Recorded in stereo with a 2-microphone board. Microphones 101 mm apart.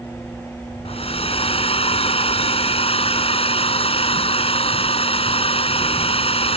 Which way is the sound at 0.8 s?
75° left (ahead or behind).